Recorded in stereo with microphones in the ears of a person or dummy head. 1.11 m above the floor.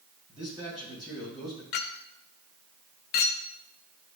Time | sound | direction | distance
0.3 | a man speaking | 35° right (ahead or behind) | 3.5 m
1.7 | a clink | 45° left (ahead or behind) | 0.5 m